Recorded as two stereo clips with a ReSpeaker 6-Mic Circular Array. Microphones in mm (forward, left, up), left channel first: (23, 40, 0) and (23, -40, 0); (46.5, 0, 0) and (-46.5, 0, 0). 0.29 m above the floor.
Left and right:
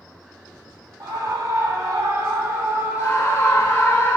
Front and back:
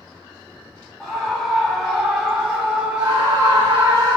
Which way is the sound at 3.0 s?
150° left.